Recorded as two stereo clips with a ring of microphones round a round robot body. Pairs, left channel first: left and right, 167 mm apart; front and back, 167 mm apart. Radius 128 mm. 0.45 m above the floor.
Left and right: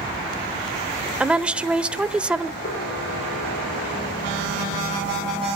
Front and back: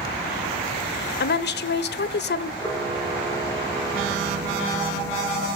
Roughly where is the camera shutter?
Left.